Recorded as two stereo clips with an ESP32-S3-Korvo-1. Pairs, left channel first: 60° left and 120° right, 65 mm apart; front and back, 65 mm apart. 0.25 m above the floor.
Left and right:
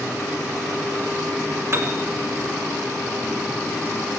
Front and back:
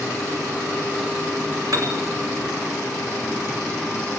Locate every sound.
1.7 s a piano: 165° right, 2.5 m